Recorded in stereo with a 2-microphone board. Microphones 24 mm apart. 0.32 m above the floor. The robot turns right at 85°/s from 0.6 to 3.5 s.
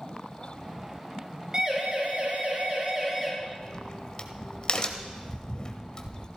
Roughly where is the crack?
Left.